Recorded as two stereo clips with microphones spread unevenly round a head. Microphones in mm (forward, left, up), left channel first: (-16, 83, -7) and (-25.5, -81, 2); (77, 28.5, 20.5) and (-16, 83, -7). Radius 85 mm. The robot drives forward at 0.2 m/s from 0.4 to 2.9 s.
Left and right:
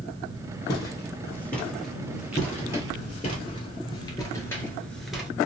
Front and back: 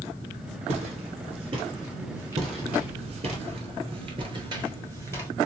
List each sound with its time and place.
0.7 s footsteps: 150° left, 1.5 m; by 3.4 s 80° right, 1.2 m
2.4 s footsteps: 125° left, 1.8 m; by 5.3 s 140° right, 1.0 m